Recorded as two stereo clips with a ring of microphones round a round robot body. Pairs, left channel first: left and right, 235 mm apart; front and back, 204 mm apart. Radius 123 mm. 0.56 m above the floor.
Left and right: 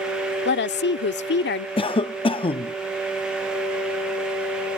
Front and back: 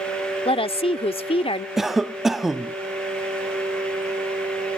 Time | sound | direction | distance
0.5 | a woman speaking | 60° left | ?
1.8 | a cough | 95° left | ?